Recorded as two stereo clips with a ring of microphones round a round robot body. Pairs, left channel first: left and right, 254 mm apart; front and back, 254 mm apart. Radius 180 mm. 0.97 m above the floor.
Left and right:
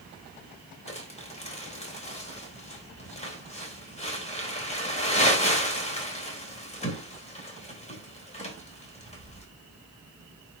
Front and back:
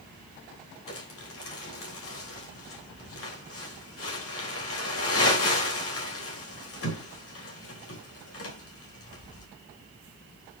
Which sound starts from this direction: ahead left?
Crumpling, at 0.9 s.